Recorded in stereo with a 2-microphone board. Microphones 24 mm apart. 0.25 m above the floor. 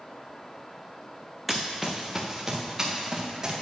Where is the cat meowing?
I don't hear a cat meowing.